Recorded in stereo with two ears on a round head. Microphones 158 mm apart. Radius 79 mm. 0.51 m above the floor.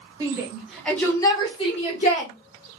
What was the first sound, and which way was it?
A shout, 20° right (ahead or behind).